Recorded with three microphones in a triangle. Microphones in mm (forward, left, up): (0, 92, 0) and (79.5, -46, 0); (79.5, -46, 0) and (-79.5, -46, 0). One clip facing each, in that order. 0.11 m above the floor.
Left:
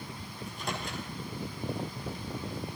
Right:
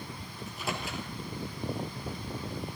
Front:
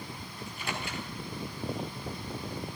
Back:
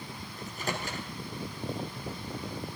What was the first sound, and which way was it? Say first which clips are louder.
A microwave: right 1 dB, back 3 dB; 145° right.